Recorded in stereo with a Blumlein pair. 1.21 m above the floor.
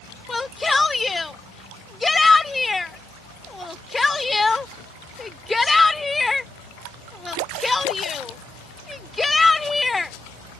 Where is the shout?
10° left.